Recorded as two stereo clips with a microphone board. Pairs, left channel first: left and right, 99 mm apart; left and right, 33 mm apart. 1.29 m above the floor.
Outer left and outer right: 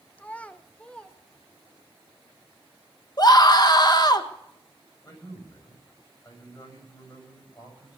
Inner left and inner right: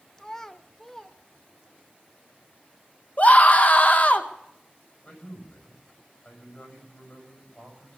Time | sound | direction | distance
0.2 | a child speaking | 15° left (ahead or behind) | 0.7 m
3.2 | a scream | 40° left (ahead or behind) | 1.4 m
5.0 | a man speaking | 40° left (ahead or behind) | 7.5 m